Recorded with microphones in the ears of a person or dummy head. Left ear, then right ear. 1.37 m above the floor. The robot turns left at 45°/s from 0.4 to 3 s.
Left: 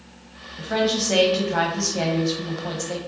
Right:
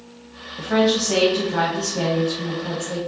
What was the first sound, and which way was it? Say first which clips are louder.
A woman speaking: right 3 dB; 170° right.